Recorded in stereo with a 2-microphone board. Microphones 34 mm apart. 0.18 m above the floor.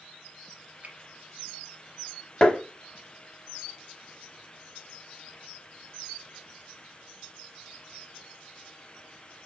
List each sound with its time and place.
0.8 s a finger snap: 50° right (ahead or behind), 1.4 m
2.4 s tapping: 25° left (ahead or behind), 0.6 m